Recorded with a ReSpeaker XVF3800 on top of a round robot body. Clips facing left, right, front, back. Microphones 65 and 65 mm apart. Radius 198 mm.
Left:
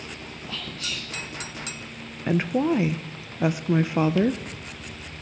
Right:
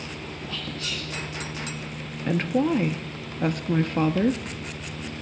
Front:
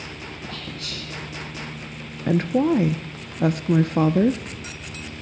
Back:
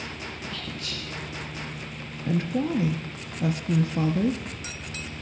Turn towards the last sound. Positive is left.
turn(degrees=10)